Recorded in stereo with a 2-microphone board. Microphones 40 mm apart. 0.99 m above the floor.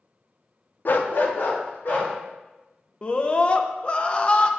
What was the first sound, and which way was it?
A dog barking, 50° left (ahead or behind).